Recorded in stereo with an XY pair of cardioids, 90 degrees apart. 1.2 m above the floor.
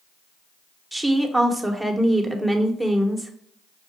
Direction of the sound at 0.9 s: Straight ahead.